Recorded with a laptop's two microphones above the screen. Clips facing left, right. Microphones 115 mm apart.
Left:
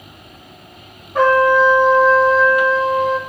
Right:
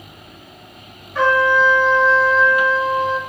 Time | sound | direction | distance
1.1 | a trumpet | 45° left (ahead or behind) | 1.0 m